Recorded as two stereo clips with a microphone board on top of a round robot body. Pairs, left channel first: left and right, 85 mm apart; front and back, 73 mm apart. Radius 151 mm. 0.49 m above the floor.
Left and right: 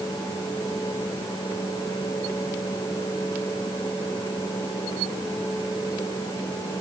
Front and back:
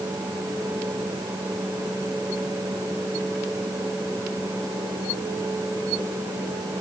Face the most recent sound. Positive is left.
No sound to turn to.